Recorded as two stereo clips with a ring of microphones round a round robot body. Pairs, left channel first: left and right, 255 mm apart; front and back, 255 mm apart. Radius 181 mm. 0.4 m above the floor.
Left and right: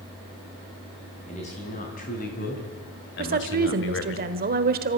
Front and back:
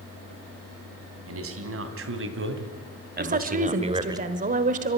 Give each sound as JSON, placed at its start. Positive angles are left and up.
{"t": 1.3, "sound": "a man speaking", "azimuth_deg": 160, "distance_m": 3.5}
{"t": 3.2, "sound": "a woman speaking", "azimuth_deg": -130, "distance_m": 1.2}